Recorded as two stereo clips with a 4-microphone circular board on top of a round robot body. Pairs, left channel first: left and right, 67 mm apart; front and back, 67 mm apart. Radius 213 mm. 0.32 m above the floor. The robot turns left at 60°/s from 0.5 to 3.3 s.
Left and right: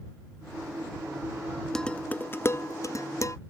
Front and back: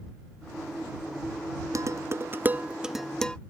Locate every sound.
1.8 s dishes clattering: 170° left; by 3.4 s 75° left